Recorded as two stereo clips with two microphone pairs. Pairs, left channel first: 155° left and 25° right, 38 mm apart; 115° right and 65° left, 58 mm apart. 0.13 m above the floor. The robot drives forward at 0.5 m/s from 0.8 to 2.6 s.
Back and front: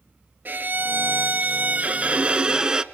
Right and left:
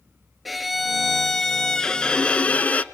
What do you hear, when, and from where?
0.5 s a violin: 25° right, 1.3 m; by 2.8 s 80° right, 0.9 m